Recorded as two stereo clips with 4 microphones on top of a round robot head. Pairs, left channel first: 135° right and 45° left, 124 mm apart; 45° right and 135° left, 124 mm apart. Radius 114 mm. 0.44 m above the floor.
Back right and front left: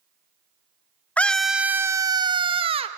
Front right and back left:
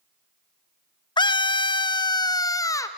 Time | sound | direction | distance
1.2 | a scream | 65° right | 0.8 m